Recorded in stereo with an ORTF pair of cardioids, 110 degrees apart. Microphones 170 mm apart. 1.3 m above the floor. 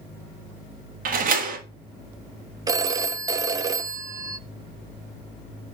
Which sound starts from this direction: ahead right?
A door slam, at 1.1 s.